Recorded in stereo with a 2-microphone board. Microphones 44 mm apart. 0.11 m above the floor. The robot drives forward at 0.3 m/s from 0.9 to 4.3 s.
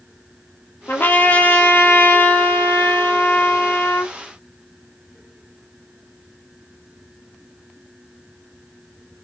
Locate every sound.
0.9 s a trumpet: 50° left (ahead or behind), 2 m; by 4.1 s 60° left (ahead or behind), 1.8 m